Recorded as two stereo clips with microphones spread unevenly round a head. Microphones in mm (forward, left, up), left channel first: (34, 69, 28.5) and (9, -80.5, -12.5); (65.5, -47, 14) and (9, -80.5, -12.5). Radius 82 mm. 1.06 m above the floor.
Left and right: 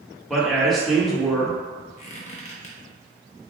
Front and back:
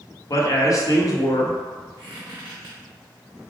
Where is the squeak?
130° left, 0.7 m.